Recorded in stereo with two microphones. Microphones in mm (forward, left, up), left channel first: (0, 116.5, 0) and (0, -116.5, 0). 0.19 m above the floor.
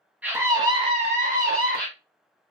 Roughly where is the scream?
Centre.